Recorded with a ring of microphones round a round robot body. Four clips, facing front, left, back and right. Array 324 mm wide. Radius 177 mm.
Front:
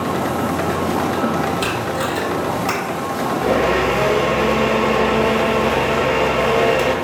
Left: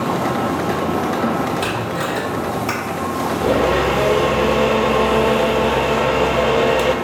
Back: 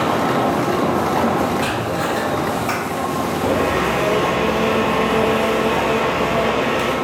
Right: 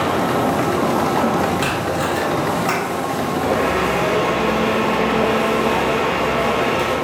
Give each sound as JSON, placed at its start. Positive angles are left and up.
{"t": 1.6, "sound": "tape being pulled", "azimuth_deg": -20, "distance_m": 1.3}
{"t": 3.4, "sound": "a blender", "azimuth_deg": 55, "distance_m": 0.6}